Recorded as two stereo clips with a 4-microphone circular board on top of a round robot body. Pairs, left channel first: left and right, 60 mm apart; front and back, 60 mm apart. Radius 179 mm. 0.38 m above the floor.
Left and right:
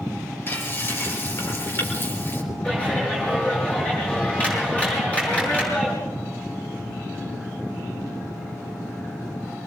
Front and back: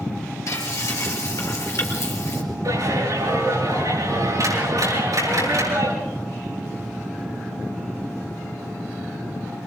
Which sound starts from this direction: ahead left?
Frying, at 0.5 s.